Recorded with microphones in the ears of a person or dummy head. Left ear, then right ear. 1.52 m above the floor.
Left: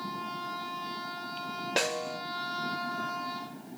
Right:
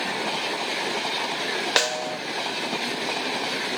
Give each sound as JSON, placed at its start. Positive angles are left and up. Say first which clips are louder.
{"t": 1.8, "sound": "a snare drum", "louder": "right 5 dB", "side_deg": -45, "distance_m": 0.5}